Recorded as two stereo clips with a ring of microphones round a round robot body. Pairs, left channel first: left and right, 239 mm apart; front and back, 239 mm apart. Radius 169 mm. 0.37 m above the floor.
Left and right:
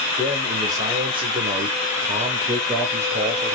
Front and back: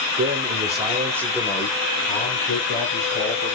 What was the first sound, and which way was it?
A man speaking, 170° right.